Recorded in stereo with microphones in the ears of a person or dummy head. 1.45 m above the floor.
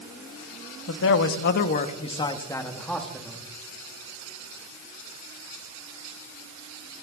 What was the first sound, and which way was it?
A man speaking, 70° left (ahead or behind).